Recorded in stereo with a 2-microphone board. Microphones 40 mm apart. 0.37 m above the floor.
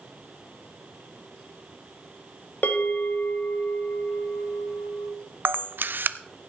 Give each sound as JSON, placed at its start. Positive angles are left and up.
{"t": 2.6, "sound": "a bell", "side_deg": 55, "distance_m": 1.7}
{"t": 5.5, "sound": "a camera shutter", "side_deg": -55, "distance_m": 0.5}